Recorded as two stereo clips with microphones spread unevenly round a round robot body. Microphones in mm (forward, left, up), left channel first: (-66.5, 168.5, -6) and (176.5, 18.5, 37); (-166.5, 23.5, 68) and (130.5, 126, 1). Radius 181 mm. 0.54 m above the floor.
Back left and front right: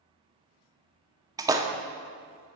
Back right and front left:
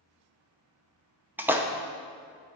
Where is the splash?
50° left, 0.6 m.